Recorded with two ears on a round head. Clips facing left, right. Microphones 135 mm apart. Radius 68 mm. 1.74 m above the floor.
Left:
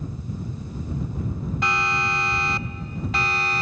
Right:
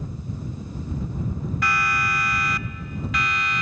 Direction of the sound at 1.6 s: 20° left (ahead or behind).